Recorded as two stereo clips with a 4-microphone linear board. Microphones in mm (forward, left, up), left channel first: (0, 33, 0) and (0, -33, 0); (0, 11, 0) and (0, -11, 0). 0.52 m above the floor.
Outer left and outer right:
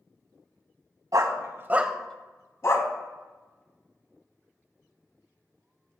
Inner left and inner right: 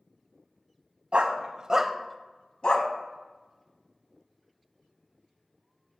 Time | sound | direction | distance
1.1 | a dog barking | 65° right (ahead or behind) | 1.0 m